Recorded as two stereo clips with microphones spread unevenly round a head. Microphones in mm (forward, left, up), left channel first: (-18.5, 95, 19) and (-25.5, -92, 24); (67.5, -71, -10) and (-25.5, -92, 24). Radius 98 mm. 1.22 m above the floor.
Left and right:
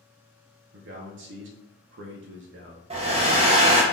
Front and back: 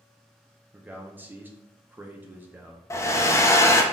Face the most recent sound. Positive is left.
turn(degrees=-60)